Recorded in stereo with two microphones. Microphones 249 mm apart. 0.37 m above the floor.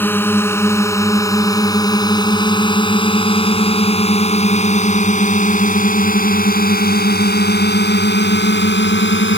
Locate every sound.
0.0 s a drone: 10° left (ahead or behind); by 9.4 s 50° left (ahead or behind)